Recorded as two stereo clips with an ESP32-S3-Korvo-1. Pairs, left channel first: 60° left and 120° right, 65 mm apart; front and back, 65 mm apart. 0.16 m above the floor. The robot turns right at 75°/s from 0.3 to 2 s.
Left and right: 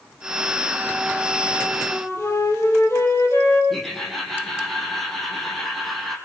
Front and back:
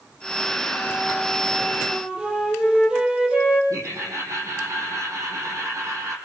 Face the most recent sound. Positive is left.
turn(degrees=145)